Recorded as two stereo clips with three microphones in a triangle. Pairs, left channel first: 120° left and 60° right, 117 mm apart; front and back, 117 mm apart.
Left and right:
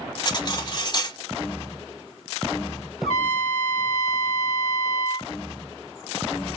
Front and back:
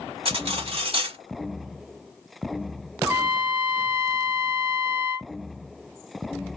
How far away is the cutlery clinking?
About 0.9 m.